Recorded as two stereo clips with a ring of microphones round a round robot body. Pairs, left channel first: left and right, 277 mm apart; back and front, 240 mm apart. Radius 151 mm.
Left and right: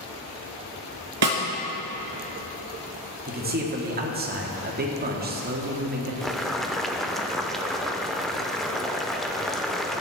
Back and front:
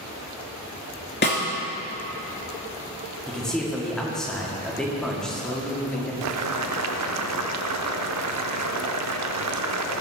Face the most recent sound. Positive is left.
turn(degrees=0)